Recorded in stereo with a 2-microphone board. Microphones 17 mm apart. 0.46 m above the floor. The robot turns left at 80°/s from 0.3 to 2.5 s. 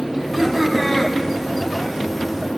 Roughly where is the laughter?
Behind right.